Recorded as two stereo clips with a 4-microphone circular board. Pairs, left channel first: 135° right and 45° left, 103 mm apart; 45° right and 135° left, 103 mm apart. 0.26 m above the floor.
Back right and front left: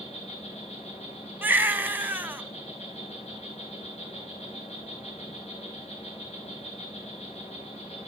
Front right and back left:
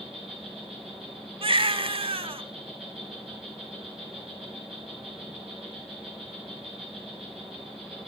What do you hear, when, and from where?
0.0 s an insect: 135° right, 5 m
1.4 s a baby crying: 115° left, 0.6 m